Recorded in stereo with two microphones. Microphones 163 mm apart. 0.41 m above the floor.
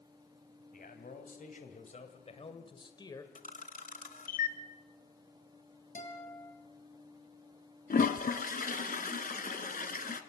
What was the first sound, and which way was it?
A man speaking, 60° left (ahead or behind).